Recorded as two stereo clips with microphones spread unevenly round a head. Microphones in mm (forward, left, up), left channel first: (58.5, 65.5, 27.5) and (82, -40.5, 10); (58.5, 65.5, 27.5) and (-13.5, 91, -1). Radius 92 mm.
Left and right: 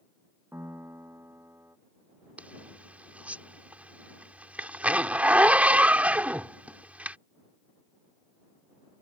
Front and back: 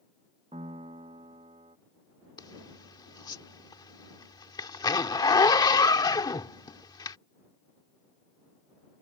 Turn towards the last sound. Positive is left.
turn(degrees=0)